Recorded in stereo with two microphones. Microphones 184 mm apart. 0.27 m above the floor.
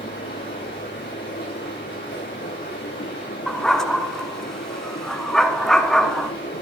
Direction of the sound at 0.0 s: 85° left.